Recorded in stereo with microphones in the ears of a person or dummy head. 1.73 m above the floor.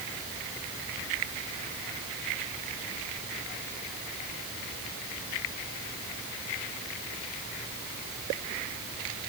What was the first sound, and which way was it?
Only background noise.